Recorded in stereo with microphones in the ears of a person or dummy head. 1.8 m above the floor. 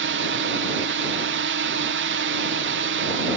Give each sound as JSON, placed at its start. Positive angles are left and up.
{"t": 0.0, "sound": "a drone", "side_deg": -60}